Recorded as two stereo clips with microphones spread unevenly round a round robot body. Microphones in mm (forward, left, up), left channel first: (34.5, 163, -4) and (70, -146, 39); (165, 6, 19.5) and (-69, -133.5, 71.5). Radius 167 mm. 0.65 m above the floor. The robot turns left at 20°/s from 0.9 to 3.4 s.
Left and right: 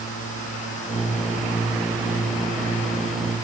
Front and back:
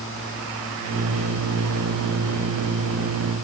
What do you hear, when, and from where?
Only background noise.